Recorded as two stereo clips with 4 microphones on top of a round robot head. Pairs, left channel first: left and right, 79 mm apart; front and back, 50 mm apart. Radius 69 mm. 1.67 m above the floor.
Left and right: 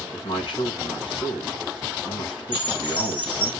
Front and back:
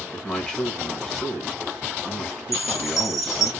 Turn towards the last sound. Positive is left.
turn(degrees=100)